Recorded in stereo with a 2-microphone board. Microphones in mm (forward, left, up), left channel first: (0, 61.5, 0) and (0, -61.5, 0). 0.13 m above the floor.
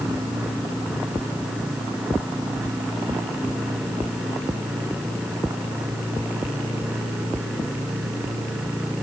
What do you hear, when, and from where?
Only background noise.